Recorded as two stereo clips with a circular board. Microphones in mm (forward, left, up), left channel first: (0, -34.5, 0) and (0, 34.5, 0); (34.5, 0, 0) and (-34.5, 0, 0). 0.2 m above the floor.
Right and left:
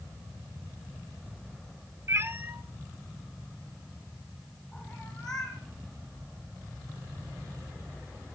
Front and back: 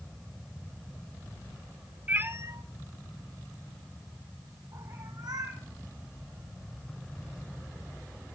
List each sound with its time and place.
2.1 s a cat meowing: 120° left, 0.7 m; by 5.6 s 170° right, 4 m